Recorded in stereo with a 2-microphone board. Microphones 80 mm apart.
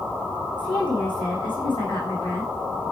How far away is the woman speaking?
About 7 m.